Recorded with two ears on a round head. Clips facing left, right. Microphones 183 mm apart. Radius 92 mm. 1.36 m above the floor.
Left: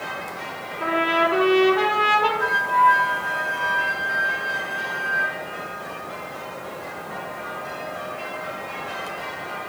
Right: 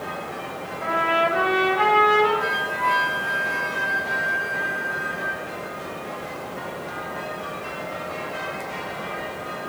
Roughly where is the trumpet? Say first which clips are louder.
Left 2 dB; left.